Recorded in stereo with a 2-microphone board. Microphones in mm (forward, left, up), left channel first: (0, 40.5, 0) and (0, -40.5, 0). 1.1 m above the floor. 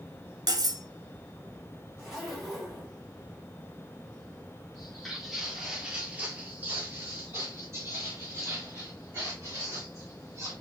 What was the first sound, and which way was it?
Cutlery clinking, 50° right (ahead or behind).